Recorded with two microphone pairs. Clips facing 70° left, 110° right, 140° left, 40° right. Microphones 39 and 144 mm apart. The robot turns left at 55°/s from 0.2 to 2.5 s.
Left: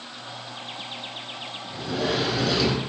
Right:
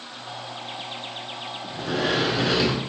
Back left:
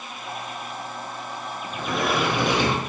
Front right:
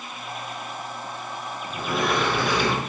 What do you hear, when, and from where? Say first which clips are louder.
1.7 s a sliding door: right 2 dB, even; 115° right, 0.7 m; by 2.8 s 160° right, 0.7 m